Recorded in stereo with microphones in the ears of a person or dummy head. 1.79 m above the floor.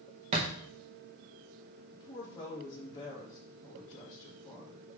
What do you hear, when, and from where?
0.3 s a thud: 25° right (ahead or behind), 1.2 m
1.9 s a woman speaking: 15° left (ahead or behind), 3 m